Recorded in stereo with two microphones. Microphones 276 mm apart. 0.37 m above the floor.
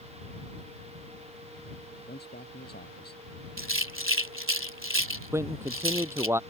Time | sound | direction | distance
2.1 | a man speaking | 35° left (ahead or behind) | ?
3.6 | a rattle | 50° right (ahead or behind) | ?
5.3 | a man speaking | 10° right (ahead or behind) | ?